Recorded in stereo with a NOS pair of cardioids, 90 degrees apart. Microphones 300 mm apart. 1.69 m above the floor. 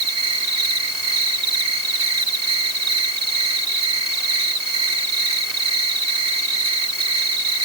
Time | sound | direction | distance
0.0 | an insect | 60° right | ?